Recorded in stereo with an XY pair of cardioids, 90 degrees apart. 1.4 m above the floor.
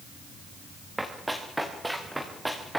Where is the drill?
No drill in this recording.